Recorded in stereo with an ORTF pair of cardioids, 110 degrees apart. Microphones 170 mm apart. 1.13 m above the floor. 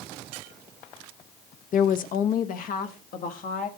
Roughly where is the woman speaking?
Ahead left.